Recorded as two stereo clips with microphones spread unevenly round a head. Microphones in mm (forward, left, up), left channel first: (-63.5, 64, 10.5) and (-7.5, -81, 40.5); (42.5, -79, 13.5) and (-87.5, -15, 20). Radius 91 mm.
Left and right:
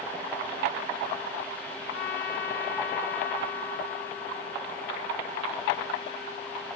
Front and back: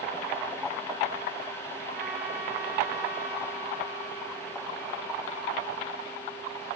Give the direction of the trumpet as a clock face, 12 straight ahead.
9 o'clock.